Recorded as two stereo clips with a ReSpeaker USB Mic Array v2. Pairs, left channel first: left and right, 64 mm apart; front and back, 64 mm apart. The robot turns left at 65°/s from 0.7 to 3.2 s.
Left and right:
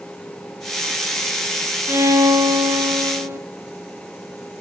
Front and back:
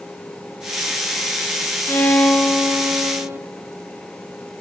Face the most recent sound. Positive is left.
turn(degrees=-135)